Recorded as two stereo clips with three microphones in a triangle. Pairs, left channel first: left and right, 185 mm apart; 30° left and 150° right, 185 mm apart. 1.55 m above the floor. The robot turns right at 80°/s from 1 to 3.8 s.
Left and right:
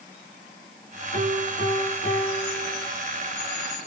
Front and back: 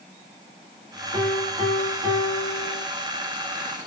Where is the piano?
65° left, 2.5 m; by 2.9 s 155° right, 2.5 m.